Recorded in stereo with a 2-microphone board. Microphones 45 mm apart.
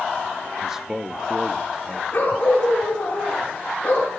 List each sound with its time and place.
0.6 s a man speaking: 10° right (ahead or behind), 0.8 m
2.1 s a dog barking: 40° left (ahead or behind), 4.5 m